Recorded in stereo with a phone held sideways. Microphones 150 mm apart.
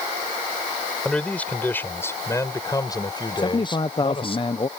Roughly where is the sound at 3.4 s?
Left.